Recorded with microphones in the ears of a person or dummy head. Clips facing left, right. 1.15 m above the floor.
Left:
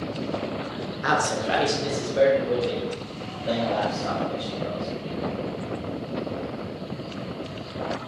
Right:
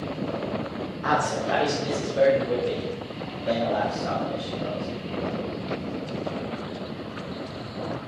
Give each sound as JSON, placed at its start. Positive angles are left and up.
{"t": 1.0, "sound": "a man speaking", "side_deg": 20, "distance_m": 0.6}